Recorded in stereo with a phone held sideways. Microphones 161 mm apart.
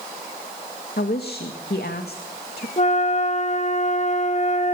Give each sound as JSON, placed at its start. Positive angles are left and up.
{"t": 1.0, "sound": "a woman speaking", "side_deg": 80, "distance_m": 2.0}
{"t": 2.8, "sound": "a flute", "side_deg": 45, "distance_m": 1.1}